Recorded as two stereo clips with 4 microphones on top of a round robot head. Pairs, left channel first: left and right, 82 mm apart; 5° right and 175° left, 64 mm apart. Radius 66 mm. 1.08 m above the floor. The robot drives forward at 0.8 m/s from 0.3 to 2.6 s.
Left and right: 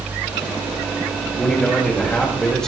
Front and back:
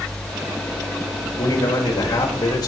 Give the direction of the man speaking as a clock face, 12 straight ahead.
12 o'clock.